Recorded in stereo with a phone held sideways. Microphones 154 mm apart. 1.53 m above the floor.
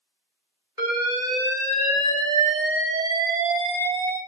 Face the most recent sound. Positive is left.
turn(degrees=-25)  # may be behind; listen again after turning